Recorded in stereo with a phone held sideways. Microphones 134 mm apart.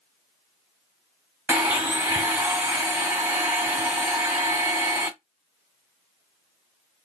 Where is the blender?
20° right (ahead or behind), 1.3 m.